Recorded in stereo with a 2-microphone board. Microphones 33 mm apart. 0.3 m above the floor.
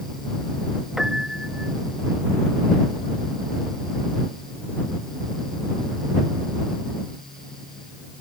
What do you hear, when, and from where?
1.0 s a piano: 15° right (ahead or behind)